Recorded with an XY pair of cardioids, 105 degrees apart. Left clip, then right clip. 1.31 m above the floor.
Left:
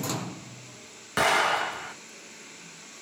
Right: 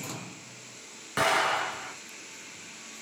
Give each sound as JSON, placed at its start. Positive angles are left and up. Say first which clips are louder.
{"t": 1.2, "sound": "an explosion", "louder": "left 2 dB", "azimuth_deg": 25, "distance_m": 0.9}